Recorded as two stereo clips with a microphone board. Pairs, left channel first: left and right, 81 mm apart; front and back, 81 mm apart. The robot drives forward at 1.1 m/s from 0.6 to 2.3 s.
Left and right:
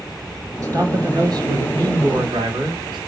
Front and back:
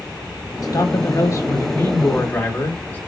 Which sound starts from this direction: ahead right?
A man speaking, at 0.6 s.